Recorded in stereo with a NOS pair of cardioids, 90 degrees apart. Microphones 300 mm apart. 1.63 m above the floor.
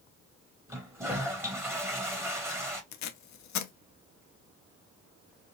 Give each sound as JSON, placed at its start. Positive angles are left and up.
{"t": 0.7, "sound": "a toilet flushing", "azimuth_deg": -10, "distance_m": 1.1}
{"t": 2.9, "sound": "tape being pulled", "azimuth_deg": 65, "distance_m": 0.6}